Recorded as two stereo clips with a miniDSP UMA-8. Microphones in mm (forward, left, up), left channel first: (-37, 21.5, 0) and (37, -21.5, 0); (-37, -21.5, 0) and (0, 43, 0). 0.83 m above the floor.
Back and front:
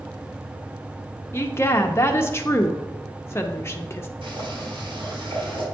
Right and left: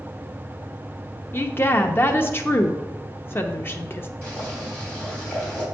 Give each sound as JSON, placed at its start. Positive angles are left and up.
{"t": 1.3, "sound": "a woman speaking", "azimuth_deg": -165, "distance_m": 0.8}
{"t": 4.2, "sound": "boiling", "azimuth_deg": -50, "distance_m": 3.5}